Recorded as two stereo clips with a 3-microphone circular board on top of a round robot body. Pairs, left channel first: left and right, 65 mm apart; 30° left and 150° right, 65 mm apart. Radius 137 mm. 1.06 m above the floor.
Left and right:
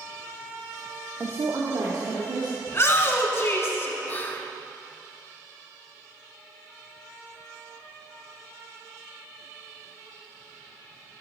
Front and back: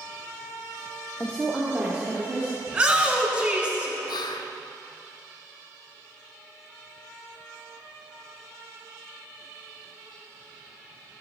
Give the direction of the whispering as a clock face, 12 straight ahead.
11 o'clock.